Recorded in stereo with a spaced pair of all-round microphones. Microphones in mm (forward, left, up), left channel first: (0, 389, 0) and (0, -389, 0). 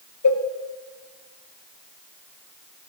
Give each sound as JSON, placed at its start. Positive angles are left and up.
{"t": 0.2, "sound": "a cowbell", "side_deg": 25, "distance_m": 0.6}